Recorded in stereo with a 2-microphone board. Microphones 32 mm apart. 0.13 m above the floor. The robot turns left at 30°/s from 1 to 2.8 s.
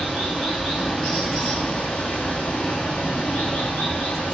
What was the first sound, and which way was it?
Running water, 170° left.